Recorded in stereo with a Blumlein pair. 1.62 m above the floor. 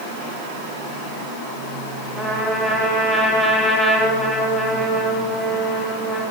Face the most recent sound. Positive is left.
turn(degrees=5)